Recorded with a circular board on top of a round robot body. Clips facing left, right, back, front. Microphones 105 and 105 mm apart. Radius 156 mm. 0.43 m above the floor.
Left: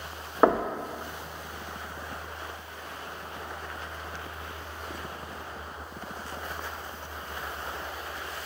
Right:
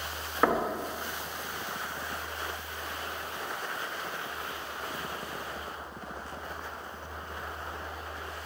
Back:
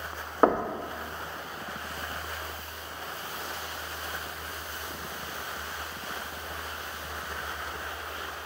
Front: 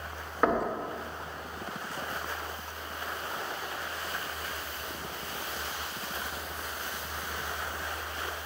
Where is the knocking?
140° left, 0.5 m.